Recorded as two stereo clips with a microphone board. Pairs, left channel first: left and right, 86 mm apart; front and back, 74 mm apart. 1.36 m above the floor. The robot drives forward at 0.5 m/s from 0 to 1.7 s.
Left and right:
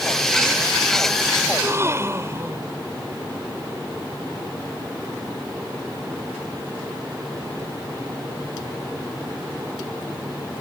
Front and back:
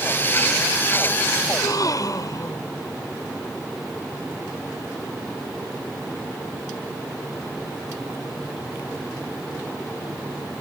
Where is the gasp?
30° right.